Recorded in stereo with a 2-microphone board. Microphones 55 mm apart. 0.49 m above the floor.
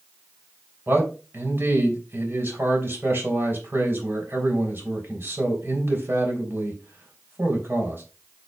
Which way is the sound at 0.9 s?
45° right (ahead or behind).